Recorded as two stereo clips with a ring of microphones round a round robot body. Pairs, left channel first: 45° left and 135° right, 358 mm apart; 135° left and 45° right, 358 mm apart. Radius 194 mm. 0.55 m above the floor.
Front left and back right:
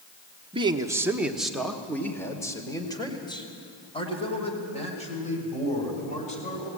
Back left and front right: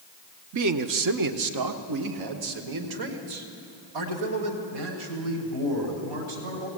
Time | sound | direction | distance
0.5 | a man speaking | 65° right | 1.1 m